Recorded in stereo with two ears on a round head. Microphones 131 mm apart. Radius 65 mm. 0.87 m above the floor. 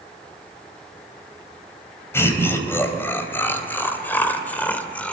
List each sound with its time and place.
2.1 s laughter: 15° left (ahead or behind), 4 m; by 5.1 s 10° left (ahead or behind), 2.5 m